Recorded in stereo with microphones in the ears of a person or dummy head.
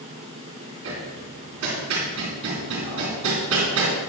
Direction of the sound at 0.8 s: 70° right (ahead or behind).